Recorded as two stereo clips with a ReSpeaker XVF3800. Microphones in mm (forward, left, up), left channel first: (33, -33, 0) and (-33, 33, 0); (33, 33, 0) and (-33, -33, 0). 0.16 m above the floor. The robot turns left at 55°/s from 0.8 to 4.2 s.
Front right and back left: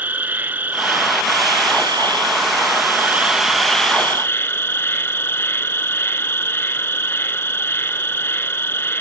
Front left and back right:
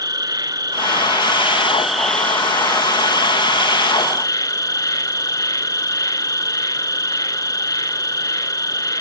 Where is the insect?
160° right; by 9.0 s 10° left.